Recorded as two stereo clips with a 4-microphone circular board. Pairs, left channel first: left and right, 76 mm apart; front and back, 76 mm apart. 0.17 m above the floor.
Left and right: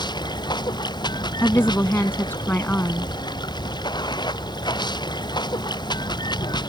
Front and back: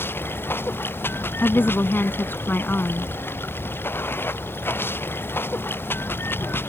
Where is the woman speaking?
45° left.